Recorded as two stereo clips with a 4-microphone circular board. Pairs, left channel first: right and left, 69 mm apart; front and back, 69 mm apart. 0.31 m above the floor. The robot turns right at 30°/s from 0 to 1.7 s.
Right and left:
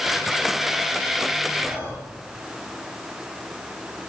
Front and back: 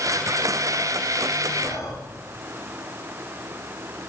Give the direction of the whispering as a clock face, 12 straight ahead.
11 o'clock.